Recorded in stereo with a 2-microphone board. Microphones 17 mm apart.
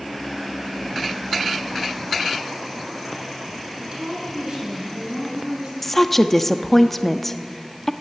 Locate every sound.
3.8 s a woman speaking: 55° right (ahead or behind), 8.5 m; by 5.7 s 40° right (ahead or behind), 7.5 m
5.8 s a woman speaking: 15° left (ahead or behind), 1.0 m